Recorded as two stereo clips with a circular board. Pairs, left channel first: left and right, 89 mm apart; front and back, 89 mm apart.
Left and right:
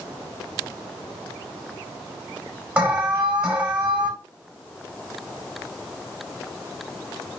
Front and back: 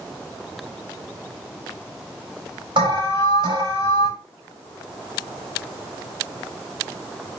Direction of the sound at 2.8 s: 165° right.